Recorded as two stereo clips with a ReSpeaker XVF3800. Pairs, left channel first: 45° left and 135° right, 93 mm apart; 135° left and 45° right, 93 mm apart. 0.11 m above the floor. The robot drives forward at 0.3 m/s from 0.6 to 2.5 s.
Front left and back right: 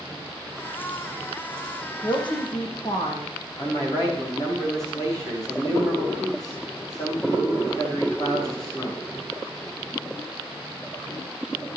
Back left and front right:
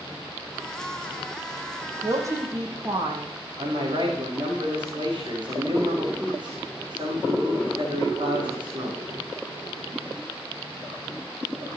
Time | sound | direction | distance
2.0 | a woman speaking | 10° left | 4.5 m
3.6 | a man speaking | 5° right | 7 m